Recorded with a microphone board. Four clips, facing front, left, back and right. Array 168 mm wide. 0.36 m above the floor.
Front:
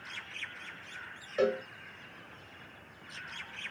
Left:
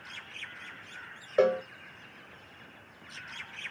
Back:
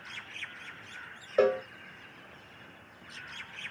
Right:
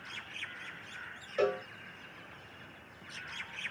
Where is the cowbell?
130° left, 0.7 m.